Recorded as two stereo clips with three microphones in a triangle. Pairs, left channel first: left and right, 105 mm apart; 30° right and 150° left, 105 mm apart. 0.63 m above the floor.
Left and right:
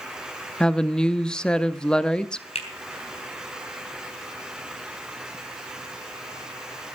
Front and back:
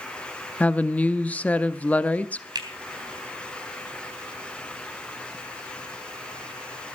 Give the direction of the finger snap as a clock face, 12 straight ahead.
9 o'clock.